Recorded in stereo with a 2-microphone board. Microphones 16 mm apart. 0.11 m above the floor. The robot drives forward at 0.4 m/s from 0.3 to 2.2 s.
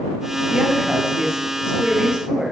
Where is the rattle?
No rattle in this recording.